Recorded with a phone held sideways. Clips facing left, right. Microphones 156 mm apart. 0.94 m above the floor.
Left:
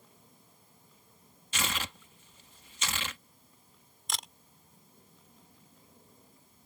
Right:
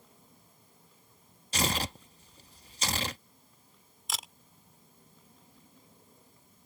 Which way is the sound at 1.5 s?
35° right (ahead or behind).